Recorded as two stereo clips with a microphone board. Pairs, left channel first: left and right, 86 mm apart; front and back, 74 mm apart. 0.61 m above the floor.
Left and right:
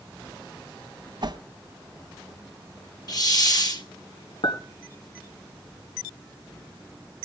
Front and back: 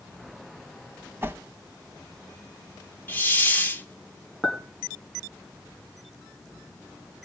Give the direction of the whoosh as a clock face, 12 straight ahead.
4 o'clock.